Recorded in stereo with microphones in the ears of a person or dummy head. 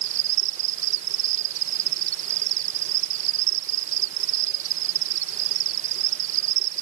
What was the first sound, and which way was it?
An insect, 35° right (ahead or behind).